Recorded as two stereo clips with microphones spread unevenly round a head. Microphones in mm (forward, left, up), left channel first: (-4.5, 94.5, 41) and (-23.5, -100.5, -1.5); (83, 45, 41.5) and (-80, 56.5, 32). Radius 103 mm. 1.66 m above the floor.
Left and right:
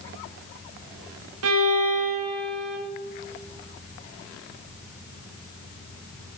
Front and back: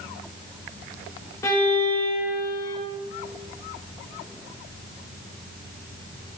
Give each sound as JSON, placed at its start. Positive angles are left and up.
{"t": 1.4, "sound": "a violin", "azimuth_deg": -80, "distance_m": 1.5}